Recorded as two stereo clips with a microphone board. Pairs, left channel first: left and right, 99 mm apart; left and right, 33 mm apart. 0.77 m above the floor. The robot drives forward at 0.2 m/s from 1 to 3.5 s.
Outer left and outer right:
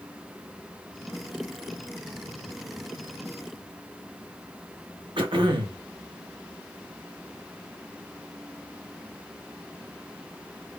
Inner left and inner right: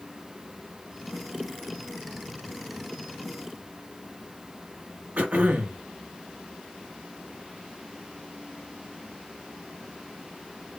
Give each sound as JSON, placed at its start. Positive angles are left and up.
{"t": 5.2, "sound": "throat clearing", "side_deg": -55, "distance_m": 1.0}